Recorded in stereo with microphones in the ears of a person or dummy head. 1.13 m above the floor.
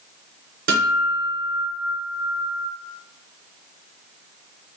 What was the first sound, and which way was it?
A guitar, 45° right (ahead or behind).